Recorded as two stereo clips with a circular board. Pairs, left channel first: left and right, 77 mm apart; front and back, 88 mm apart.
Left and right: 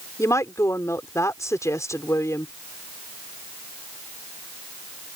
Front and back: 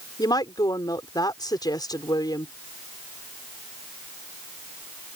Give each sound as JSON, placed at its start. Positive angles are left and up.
{"t": 0.2, "sound": "a woman speaking", "azimuth_deg": 40}